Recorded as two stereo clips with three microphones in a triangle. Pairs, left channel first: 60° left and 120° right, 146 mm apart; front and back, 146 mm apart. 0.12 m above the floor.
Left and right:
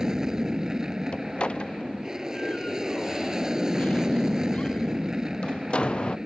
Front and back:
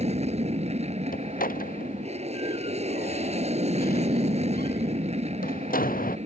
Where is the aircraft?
155° left.